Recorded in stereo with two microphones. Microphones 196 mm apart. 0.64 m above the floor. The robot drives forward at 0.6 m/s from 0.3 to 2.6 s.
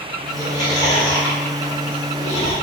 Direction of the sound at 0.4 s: 20° left (ahead or behind).